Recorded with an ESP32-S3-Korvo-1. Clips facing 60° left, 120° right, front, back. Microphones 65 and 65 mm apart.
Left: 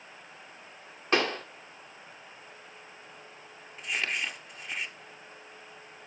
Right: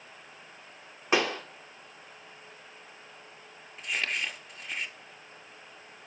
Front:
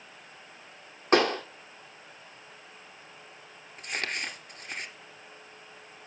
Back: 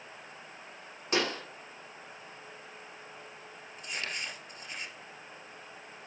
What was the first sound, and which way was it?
A pop, 40° right.